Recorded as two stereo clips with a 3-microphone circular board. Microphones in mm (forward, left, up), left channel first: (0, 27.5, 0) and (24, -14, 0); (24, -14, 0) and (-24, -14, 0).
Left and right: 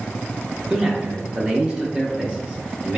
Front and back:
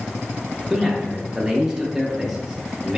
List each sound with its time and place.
0.7 s a man speaking: 110° right, 0.9 m